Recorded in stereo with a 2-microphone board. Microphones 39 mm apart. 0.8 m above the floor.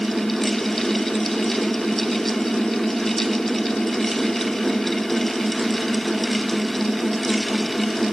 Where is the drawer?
I don't hear a drawer.